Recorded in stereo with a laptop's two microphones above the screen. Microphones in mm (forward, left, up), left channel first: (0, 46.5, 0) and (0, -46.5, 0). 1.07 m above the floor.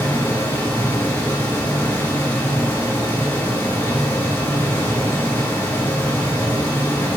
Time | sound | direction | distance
0.0 | a fan | 20° left (ahead or behind) | 1.9 m